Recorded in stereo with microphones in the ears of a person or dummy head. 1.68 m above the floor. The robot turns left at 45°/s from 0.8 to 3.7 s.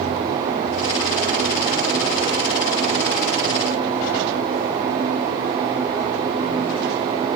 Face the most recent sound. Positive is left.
No sound to turn to.